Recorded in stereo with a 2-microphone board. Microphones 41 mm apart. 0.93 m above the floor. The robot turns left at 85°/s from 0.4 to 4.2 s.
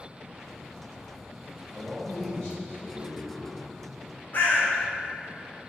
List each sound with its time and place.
1.7 s a man speaking: 145° right, 1.5 m; by 3.5 s 60° left, 1.5 m
4.3 s a bird: 40° left (ahead or behind), 0.8 m